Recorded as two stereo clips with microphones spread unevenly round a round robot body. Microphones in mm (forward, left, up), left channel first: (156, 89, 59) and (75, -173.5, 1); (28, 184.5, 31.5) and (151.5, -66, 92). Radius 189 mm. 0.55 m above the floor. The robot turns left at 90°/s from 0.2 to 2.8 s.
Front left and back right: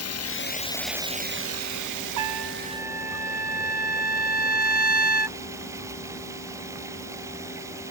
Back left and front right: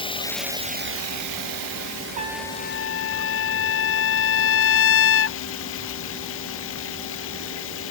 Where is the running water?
45° left; by 7.9 s 170° left.